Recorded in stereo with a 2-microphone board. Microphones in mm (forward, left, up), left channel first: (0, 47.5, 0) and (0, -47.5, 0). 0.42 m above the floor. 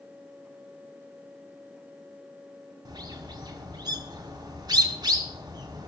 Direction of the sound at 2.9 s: 50° right (ahead or behind).